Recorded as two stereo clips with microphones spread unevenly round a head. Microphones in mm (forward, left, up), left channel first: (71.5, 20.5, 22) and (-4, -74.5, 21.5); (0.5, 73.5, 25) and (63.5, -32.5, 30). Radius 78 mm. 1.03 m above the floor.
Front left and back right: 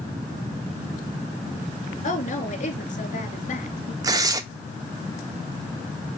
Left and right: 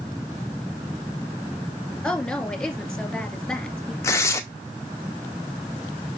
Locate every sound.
2.0 s a woman speaking: 40° left, 2.5 m
4.0 s tearing paper: 175° right, 0.6 m